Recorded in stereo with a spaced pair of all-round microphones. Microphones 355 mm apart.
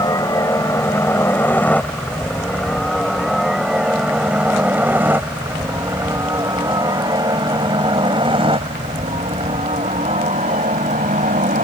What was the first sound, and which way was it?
A helicopter, 10° left (ahead or behind).